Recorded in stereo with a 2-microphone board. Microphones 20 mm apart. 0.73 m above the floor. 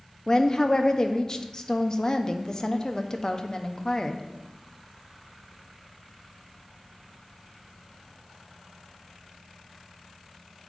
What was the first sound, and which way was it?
A woman speaking, 30° left (ahead or behind).